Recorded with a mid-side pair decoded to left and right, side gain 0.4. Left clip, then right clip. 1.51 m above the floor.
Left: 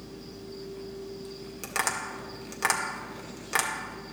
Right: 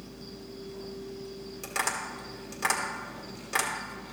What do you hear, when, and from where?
0.0 s a machine running: 70° left, 3 m
1.6 s tapping: 40° left, 1.7 m